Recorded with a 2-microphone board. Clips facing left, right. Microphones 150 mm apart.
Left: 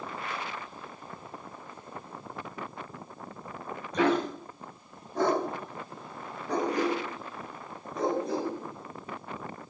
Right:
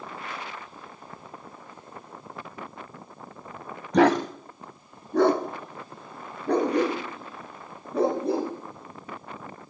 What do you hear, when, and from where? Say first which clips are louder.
3.9 s a dog barking: right 6 dB; 70° right (ahead or behind), 0.7 m; by 8.5 s 60° right (ahead or behind), 3.5 m